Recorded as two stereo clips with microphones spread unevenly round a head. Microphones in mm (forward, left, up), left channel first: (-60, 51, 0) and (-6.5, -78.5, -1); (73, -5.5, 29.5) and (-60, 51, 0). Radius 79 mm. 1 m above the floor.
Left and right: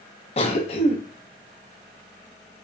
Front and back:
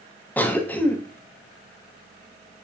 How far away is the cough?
About 0.6 m.